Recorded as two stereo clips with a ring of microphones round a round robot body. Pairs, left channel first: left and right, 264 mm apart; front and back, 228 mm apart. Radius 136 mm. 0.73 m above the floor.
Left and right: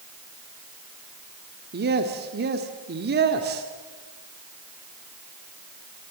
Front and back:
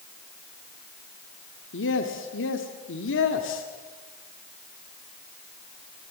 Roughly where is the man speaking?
Ahead right.